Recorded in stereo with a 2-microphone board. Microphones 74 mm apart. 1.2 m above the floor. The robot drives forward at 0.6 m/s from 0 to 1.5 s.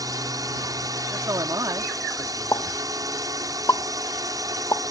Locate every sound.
0.0 s a drone: 55° right (ahead or behind)
1.1 s a man speaking: 60° right (ahead or behind); by 2.8 s 65° right (ahead or behind)
2.5 s a pop: 55° left (ahead or behind)